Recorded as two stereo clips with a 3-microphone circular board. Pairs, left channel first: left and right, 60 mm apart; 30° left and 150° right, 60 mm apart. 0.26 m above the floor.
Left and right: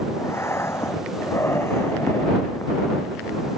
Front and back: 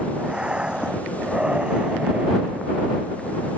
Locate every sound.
0.2 s breathing: 135° left